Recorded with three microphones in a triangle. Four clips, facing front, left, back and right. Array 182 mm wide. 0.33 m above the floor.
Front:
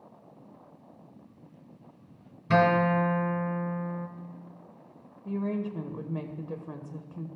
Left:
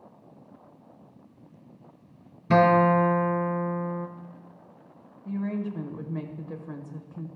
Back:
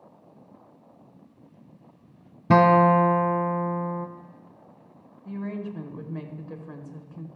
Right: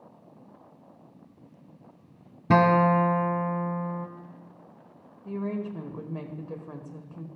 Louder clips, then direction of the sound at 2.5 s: Left 1 dB, back 6 dB; 150° right.